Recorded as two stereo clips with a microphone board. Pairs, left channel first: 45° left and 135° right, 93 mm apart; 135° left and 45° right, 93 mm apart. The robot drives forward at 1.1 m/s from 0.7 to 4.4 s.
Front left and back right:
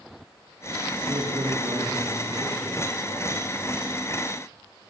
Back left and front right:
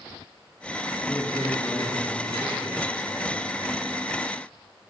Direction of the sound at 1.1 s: 165° right.